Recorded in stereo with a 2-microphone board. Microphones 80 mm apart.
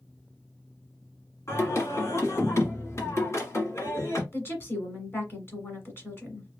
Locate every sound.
1.5 s singing: 35° left (ahead or behind), 1.4 m
4.3 s a woman speaking: 30° left (ahead or behind), 1.3 m